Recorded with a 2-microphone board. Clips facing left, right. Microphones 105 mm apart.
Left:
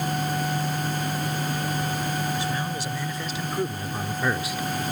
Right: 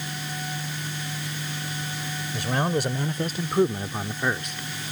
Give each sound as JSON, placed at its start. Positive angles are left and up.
{"t": 2.3, "sound": "a man speaking", "side_deg": -60}